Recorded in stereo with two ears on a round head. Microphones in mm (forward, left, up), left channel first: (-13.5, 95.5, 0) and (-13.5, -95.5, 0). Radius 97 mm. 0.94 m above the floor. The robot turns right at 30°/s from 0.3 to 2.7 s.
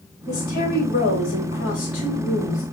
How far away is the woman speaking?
About 4.5 m.